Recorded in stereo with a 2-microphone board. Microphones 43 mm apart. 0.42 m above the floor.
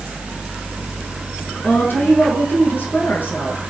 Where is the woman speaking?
55° left (ahead or behind), 5.5 m.